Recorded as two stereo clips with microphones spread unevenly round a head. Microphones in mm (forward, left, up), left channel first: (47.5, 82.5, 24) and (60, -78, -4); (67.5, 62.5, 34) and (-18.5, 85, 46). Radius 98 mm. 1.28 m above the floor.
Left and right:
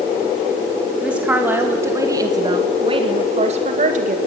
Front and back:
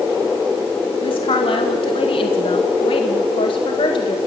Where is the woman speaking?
5° right, 2 m; by 4.2 s 50° right, 2.0 m.